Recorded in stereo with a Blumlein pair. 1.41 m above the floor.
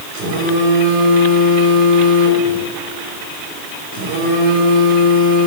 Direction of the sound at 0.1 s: 50° right.